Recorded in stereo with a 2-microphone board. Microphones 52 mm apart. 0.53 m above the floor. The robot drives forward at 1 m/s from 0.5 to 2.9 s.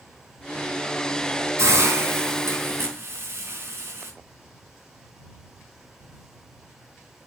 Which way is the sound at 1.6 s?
65° right (ahead or behind).